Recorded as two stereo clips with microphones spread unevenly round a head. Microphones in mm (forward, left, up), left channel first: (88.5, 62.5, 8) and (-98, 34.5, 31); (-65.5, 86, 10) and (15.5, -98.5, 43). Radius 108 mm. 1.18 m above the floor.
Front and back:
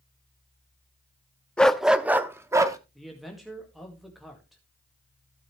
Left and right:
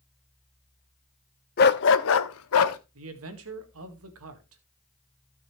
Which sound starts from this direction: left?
A dog barking, at 1.6 s.